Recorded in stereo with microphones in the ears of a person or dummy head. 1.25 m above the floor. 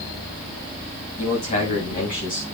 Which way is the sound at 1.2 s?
40° left (ahead or behind).